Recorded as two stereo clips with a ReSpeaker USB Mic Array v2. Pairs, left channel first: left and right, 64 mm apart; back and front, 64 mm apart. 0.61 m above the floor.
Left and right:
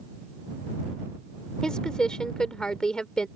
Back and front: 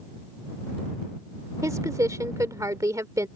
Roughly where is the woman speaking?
Ahead.